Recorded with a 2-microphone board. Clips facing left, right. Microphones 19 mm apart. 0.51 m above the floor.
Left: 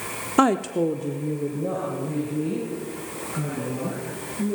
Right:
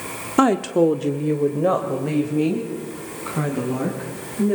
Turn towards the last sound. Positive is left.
turn(degrees=-80)